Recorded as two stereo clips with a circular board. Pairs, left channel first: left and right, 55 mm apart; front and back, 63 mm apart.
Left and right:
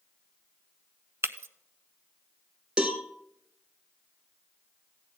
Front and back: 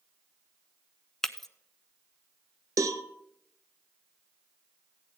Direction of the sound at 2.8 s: 165° right.